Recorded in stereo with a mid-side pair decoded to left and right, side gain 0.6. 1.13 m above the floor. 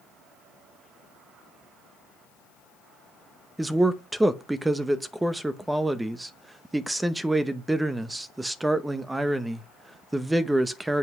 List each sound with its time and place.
3.6 s a man speaking: 10° right, 0.8 m